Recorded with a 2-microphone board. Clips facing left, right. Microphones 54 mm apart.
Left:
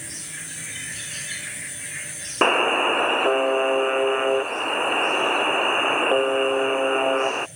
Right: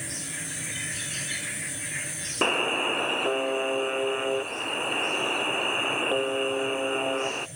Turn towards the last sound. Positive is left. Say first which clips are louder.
# left 7 dB
turn(degrees=30)  # may be behind; listen again after turning